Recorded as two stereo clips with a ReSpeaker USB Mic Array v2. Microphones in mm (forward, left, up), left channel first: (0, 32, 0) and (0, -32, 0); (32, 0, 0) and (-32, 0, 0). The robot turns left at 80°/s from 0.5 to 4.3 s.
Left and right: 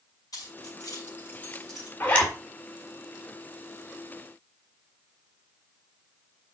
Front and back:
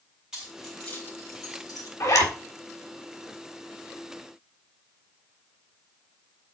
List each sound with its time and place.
0.3 s keys jangling: 105° left, 4 m; by 1.9 s 10° right, 4 m
2.0 s a zipper: 30° left, 2.0 m; by 2.3 s 5° left, 2.0 m